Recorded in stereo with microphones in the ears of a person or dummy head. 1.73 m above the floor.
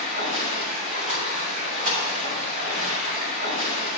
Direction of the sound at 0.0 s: 40° right (ahead or behind).